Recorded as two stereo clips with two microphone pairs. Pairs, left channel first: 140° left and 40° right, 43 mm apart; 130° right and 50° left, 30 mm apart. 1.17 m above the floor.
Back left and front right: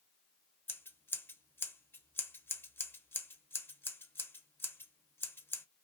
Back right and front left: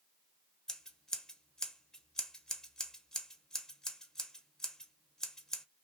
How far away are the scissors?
About 0.5 m.